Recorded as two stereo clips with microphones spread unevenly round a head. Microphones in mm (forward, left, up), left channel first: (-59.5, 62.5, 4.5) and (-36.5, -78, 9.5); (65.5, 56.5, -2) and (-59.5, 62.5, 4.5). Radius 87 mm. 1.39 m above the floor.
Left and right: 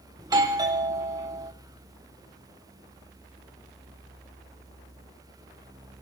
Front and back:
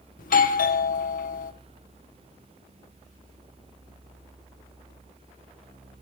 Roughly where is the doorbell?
Ahead.